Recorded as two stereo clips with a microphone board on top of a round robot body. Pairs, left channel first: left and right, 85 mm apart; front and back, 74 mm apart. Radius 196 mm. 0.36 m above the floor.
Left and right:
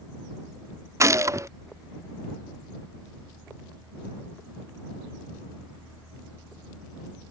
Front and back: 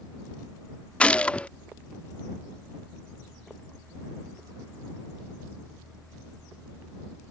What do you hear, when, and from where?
1.0 s a gunshot: 65° right